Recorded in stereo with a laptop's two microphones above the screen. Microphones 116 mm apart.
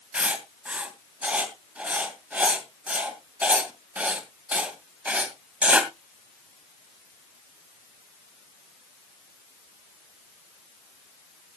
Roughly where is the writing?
Centre.